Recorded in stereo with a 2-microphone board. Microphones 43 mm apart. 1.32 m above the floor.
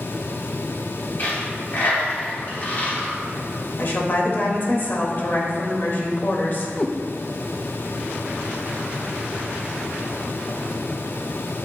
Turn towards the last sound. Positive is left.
turn(degrees=25)  # may be behind; listen again after turning